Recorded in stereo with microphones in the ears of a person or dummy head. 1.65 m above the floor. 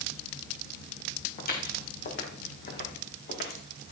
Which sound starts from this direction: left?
Footsteps, at 1.4 s.